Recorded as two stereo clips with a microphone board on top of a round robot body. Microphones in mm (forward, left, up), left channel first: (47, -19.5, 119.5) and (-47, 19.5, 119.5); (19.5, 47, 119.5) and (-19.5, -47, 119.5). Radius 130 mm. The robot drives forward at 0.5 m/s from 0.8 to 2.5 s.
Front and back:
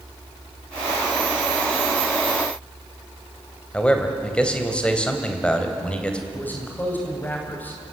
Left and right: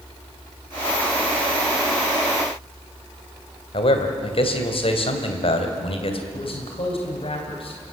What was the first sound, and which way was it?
A man speaking, 55° left.